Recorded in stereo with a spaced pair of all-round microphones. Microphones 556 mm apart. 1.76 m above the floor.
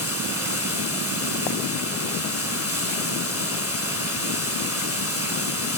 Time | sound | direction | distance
0.0 | running water | 25° left (ahead or behind) | 5 m